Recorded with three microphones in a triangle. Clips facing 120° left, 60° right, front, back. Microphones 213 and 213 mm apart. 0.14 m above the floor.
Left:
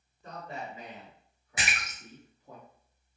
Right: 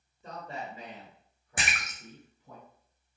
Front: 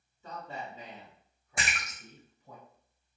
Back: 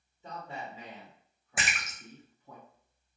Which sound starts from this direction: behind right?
A man speaking, at 0.2 s.